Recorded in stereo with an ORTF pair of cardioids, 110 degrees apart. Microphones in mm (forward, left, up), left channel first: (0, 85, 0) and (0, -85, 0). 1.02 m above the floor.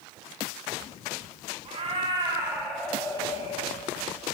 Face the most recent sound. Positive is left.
turn(degrees=60)